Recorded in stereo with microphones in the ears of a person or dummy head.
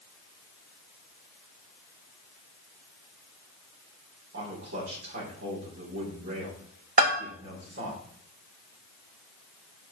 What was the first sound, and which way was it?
A man speaking, 60° right (ahead or behind).